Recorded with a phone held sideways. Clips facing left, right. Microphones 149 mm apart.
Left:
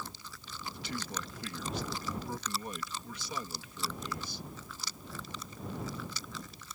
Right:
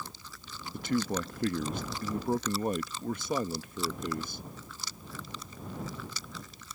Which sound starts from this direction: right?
A man speaking, at 0.7 s.